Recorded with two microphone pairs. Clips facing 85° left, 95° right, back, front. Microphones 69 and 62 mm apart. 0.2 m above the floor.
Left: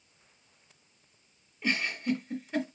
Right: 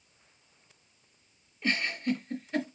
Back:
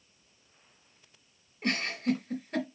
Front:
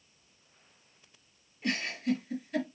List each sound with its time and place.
1.6 s a giggle: 160° left, 2 m